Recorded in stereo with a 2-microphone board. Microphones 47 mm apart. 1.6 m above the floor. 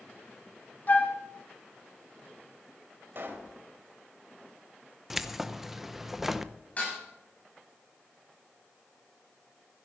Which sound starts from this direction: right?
A pop, at 3.1 s.